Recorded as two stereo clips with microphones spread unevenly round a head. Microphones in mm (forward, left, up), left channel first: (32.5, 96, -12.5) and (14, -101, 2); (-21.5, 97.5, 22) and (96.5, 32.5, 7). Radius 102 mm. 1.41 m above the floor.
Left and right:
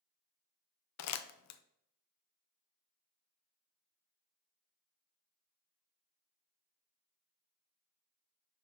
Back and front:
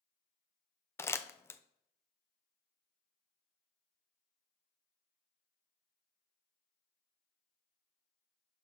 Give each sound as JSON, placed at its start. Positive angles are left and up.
{"t": 1.0, "sound": "crumpling", "azimuth_deg": 75, "distance_m": 0.6}